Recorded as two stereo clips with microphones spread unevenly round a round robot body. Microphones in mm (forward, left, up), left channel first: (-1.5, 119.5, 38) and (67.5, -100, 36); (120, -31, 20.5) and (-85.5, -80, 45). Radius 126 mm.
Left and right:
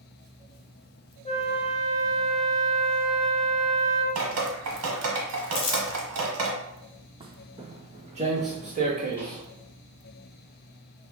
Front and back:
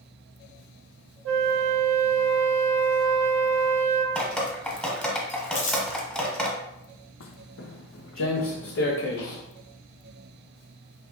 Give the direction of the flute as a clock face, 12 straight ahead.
6 o'clock.